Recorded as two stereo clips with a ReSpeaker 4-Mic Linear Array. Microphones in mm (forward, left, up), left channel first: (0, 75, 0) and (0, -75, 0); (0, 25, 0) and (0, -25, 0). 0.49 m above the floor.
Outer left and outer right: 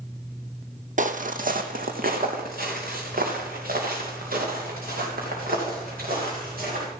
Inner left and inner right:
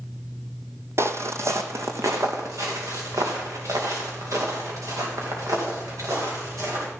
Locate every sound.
1.0 s footsteps: 60° right (ahead or behind), 0.8 m; by 6.8 s 80° right, 6 m